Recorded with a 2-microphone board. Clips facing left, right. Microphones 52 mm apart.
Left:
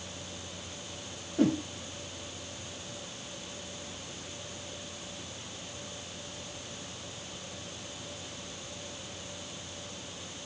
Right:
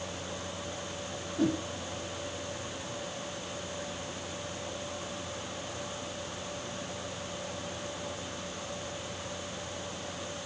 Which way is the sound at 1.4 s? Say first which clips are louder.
Left 3 dB; 50° left (ahead or behind).